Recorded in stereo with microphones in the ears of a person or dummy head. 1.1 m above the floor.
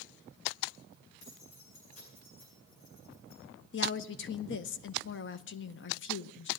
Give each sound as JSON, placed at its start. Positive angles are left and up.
{"t": 1.2, "sound": "keys jangling", "side_deg": 75, "distance_m": 9.0}
{"t": 3.7, "sound": "a woman speaking", "side_deg": 55, "distance_m": 0.7}